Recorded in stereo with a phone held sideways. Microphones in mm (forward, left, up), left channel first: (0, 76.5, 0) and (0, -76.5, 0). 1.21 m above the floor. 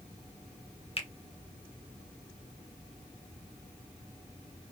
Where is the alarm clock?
No alarm clock in this recording.